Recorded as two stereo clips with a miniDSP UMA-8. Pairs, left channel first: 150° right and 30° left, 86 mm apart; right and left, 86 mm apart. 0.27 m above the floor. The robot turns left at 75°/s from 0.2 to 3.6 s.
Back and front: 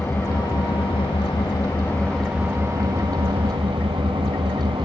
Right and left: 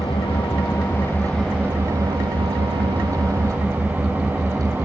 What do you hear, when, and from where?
0.0 s an engine running: 85° right, 7 m; by 4.9 s 20° left, 7 m